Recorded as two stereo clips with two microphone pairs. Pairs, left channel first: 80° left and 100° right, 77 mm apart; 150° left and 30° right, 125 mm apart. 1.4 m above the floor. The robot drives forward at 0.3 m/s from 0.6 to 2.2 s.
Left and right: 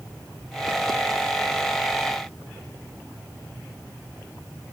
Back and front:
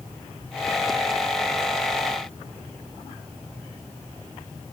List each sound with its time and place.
Only background noise.